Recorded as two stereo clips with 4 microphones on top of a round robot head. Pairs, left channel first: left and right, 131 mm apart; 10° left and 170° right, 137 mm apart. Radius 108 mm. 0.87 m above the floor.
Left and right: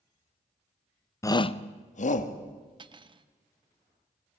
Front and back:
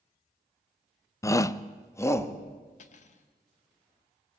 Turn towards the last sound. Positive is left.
turn(degrees=-35)